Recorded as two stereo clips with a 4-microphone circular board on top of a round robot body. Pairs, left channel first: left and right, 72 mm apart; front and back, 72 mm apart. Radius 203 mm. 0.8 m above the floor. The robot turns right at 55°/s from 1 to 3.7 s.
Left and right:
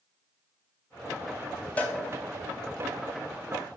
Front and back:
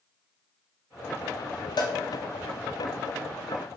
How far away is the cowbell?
About 1.7 m.